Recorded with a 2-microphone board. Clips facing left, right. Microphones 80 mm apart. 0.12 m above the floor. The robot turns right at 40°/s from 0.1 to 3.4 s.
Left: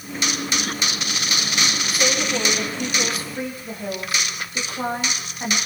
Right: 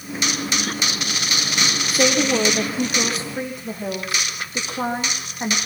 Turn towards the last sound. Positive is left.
turn(degrees=-20)